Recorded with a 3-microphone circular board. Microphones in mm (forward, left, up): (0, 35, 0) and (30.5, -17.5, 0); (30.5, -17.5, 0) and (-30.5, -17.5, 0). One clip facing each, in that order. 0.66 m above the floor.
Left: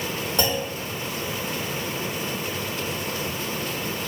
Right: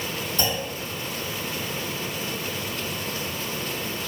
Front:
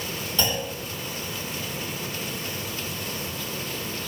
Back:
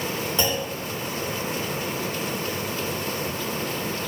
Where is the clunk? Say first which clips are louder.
Left 3 dB, back 1 dB; 110° left, 1.9 m.